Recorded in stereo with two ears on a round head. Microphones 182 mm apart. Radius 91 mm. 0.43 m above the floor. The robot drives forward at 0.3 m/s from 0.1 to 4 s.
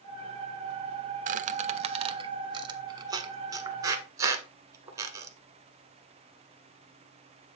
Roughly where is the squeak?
Right.